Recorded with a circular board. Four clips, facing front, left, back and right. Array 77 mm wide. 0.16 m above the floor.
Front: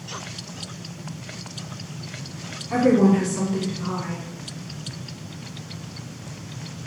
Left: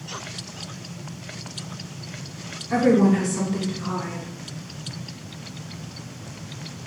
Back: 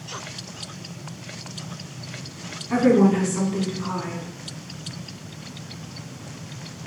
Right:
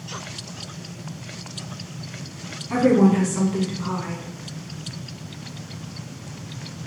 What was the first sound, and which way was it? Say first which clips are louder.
A woman speaking: right 1 dB, even; 125° right.